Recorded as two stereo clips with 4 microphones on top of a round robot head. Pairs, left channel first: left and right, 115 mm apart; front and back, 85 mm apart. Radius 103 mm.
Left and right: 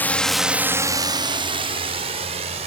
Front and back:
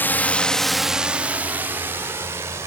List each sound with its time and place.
0.0 s a drone: 35° left; by 2.7 s 120° right